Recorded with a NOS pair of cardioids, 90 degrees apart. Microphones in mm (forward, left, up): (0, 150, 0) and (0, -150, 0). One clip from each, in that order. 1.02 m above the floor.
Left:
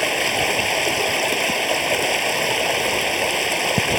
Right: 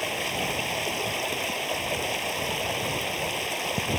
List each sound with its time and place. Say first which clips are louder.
0.0 s running water: left 9 dB; 55° left